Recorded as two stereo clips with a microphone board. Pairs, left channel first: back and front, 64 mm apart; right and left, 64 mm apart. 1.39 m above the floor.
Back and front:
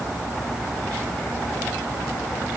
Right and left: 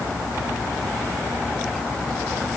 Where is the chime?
I don't hear a chime.